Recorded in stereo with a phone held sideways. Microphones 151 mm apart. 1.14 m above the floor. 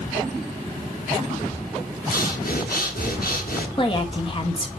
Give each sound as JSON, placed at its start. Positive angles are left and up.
{"t": 2.1, "sound": "breathing", "side_deg": 75, "distance_m": 1.9}
{"t": 3.8, "sound": "a woman speaking", "side_deg": 35, "distance_m": 1.9}